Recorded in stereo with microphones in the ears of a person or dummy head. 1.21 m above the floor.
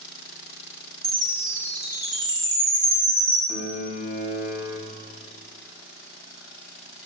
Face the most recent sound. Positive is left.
turn(degrees=-10)  # may be behind; listen again after turning